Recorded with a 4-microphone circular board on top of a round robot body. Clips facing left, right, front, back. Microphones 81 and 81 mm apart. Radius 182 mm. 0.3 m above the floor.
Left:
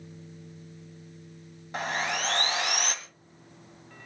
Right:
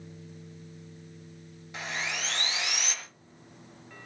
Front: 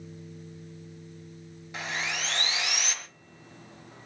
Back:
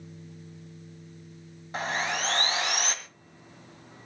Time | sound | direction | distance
1.7 | sawing | 130° left | 2 m